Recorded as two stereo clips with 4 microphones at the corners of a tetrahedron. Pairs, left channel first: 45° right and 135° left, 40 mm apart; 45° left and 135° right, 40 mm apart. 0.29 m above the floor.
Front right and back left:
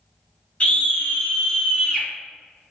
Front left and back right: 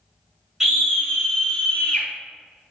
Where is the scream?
65° right, 1.4 m; by 2.1 s 5° left, 1.4 m.